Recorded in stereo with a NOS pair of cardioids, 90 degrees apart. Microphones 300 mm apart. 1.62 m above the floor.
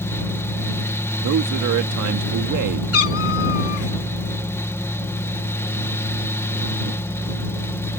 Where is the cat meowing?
50° left.